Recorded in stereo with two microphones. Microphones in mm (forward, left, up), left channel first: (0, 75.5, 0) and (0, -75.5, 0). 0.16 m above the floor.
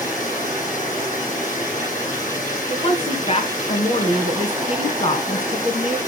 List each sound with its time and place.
0.0 s running water: 60° left (ahead or behind), 6.5 m
2.7 s a woman speaking: 40° left (ahead or behind), 2 m